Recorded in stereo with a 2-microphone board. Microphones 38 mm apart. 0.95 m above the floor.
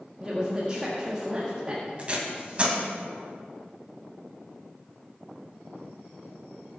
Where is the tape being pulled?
35° right (ahead or behind), 2.5 m.